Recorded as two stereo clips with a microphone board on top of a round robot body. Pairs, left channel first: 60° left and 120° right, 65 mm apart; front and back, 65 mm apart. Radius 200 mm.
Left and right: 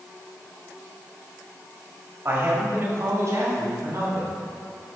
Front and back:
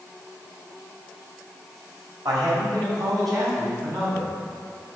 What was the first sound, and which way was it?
A man speaking, 175° right.